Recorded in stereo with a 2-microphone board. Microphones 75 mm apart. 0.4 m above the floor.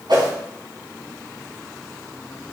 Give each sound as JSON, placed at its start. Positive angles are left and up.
{"t": 0.1, "sound": "a whoosh", "side_deg": -70, "distance_m": 4.0}